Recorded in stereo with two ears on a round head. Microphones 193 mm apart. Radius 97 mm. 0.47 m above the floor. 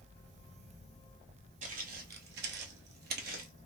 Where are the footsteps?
40° right (ahead or behind), 0.8 m.